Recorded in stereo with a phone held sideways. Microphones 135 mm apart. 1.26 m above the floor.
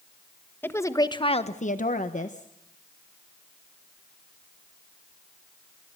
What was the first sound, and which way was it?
A woman speaking, 15° left (ahead or behind).